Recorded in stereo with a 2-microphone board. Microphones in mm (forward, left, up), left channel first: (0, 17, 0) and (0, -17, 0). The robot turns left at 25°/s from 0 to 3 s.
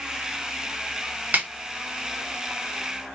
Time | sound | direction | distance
1.3 | a snare drum | 50° right (ahead or behind) | 1.2 m